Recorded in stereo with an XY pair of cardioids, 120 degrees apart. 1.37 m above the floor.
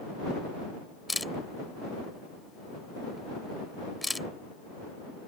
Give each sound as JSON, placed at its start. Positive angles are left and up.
{"t": 1.1, "sound": "a camera shutter", "azimuth_deg": 10}